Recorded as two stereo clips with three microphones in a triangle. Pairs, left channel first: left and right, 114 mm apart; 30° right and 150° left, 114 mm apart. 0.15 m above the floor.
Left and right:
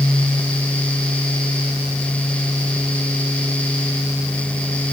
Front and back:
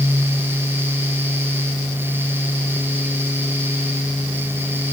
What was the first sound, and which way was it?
Only background noise.